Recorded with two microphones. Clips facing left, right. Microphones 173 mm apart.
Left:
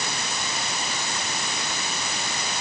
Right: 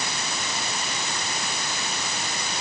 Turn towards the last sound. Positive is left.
No sound to turn to.